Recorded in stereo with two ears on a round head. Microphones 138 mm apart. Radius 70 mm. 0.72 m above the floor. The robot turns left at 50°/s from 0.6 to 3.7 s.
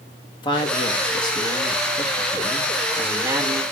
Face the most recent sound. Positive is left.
turn(degrees=-55)